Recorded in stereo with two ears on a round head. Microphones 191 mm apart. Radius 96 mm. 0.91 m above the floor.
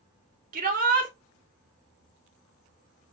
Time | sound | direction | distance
0.5 | a shout | 40° right (ahead or behind) | 1.8 m